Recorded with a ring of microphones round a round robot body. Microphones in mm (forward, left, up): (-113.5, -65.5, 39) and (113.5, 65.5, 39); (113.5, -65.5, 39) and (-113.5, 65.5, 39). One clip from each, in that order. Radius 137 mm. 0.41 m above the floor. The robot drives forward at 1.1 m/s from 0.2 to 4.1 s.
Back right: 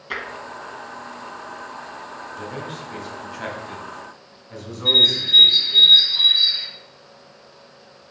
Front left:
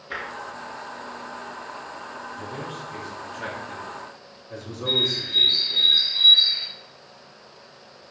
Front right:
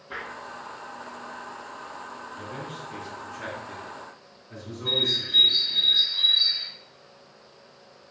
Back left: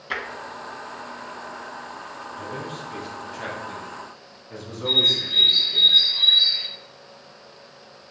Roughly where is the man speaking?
Right.